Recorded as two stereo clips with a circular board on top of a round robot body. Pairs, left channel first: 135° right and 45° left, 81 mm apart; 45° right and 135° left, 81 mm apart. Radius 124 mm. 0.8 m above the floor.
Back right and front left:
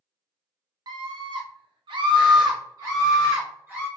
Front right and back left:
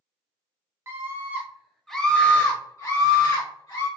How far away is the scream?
About 1.1 m.